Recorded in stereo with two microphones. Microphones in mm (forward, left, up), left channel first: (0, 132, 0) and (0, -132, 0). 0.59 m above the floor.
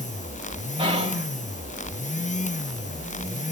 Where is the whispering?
20° right (ahead or behind), 3.5 m.